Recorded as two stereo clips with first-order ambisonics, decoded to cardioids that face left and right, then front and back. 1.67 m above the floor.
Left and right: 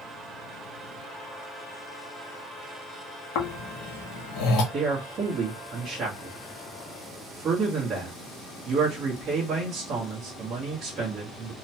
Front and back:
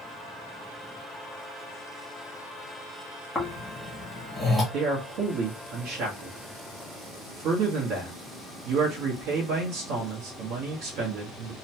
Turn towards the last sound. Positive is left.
turn(degrees=-150)